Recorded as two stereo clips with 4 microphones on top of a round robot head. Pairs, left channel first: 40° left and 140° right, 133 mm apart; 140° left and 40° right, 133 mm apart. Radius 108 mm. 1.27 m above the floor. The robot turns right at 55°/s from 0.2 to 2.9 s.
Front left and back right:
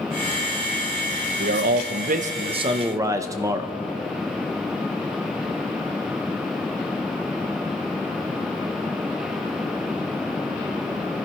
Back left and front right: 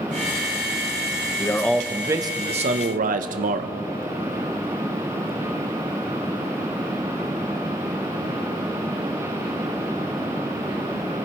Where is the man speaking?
150° right, 0.8 m; by 3.8 s 70° right, 0.8 m.